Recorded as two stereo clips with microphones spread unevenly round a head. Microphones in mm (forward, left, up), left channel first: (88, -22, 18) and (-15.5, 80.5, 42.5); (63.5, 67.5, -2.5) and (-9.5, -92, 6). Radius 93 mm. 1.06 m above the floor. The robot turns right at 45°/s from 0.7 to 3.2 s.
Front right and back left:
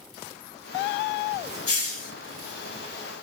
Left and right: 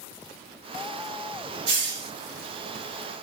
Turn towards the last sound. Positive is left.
turn(degrees=-30)